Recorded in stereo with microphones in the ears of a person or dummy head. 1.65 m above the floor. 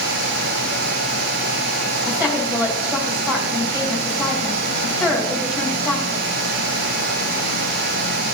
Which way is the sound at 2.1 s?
5° right (ahead or behind).